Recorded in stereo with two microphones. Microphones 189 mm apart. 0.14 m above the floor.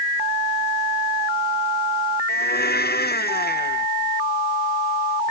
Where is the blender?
55° left (ahead or behind).